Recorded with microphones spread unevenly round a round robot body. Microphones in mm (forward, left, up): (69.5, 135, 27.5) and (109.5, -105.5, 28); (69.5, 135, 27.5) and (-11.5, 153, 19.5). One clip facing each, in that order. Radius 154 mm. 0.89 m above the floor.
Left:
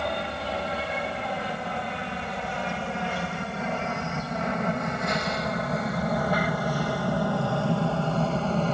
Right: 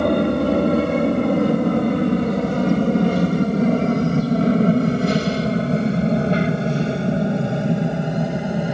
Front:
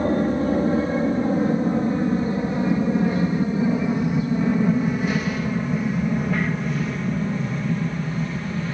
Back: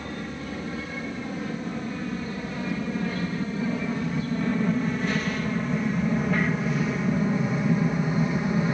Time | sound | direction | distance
0.0 | an aircraft | 70° right | ?